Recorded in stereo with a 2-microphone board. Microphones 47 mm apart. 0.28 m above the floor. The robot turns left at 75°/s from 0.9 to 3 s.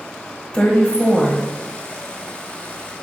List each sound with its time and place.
0.5 s a woman speaking: 50° left, 1.0 m; by 1.4 s 5° left, 1.0 m